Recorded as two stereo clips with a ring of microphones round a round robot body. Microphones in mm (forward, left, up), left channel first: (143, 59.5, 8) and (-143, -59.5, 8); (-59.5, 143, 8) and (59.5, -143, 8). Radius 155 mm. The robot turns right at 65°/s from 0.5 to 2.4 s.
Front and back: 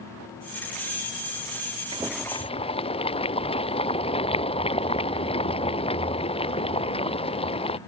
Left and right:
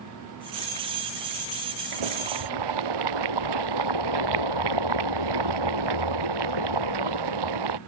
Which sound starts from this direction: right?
Boiling, at 1.9 s.